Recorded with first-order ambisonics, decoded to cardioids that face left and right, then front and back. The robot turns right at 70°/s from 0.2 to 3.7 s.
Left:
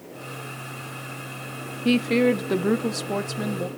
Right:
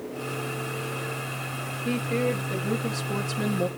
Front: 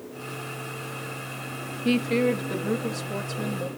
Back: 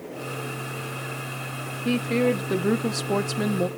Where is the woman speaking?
70° left, 0.7 m; by 3.7 s 160° right, 0.7 m.